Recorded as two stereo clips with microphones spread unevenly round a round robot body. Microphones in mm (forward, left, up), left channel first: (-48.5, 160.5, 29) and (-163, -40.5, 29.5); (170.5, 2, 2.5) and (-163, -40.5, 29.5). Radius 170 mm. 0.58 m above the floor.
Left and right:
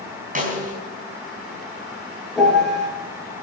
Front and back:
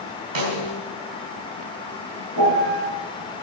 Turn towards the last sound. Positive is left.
turn(degrees=155)